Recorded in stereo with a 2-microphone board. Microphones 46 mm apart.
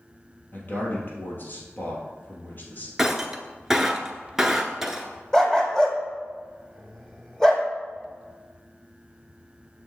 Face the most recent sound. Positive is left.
turn(degrees=15)  # may be behind; listen again after turning